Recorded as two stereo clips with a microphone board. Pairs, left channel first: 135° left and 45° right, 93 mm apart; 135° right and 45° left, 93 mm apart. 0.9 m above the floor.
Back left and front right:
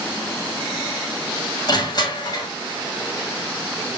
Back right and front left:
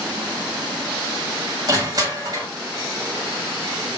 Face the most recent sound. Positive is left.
turn(degrees=90)